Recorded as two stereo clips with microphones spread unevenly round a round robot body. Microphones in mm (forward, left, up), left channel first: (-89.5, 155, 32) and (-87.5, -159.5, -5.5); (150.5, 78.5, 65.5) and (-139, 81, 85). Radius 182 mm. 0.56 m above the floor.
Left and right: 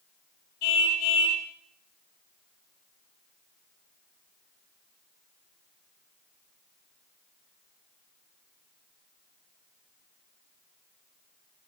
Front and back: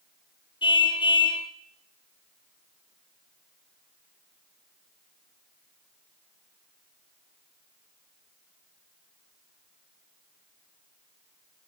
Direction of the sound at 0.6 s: 75° left.